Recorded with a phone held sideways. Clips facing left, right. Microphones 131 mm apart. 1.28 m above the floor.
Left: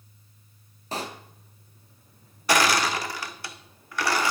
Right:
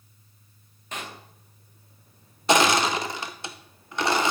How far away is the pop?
About 0.6 m.